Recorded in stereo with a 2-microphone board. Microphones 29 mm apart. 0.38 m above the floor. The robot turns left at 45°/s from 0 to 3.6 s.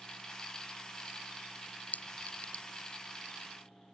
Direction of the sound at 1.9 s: 70° left (ahead or behind).